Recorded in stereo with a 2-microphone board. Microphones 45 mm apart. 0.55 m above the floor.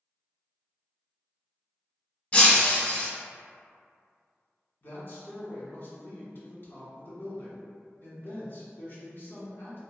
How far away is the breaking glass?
About 0.5 m.